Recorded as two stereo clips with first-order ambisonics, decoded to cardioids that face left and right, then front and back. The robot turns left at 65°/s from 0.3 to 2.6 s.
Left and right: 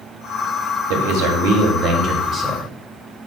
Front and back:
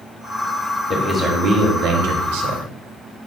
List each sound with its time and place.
0.9 s a man speaking: 85° right, 0.8 m; by 2.6 s 165° left, 0.8 m